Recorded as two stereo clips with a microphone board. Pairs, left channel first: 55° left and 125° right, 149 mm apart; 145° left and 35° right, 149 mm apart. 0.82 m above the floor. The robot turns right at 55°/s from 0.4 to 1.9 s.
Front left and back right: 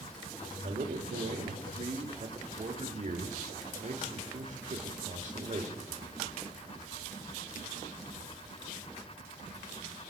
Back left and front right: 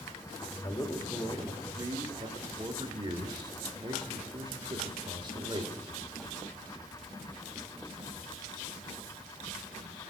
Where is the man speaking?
160° right, 2 m; by 5.7 s 90° right, 2 m.